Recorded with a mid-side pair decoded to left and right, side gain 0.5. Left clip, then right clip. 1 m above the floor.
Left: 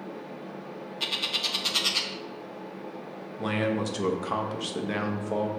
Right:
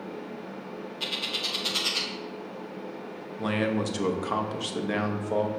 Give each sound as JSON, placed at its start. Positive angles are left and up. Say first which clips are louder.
{"t": 0.0, "sound": "a fan", "louder": "right 1 dB", "azimuth_deg": -45, "distance_m": 1.1}
{"t": 1.0, "sound": "a bird", "louder": "left 2 dB", "azimuth_deg": 15, "distance_m": 0.6}
{"t": 3.4, "sound": "a man speaking", "louder": "even", "azimuth_deg": -5, "distance_m": 0.7}